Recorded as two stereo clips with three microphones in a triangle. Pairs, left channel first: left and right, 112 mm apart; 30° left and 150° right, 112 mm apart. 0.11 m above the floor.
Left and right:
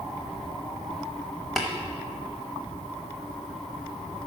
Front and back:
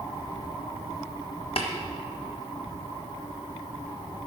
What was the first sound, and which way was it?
Tapping, straight ahead.